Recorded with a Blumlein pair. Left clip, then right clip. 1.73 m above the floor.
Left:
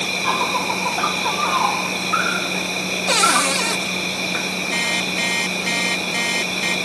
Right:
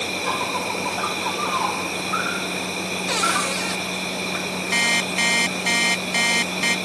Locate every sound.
0.0 s an insect: 15° left
3.1 s a cupboard door: 20° left
4.7 s an alarm clock: 10° right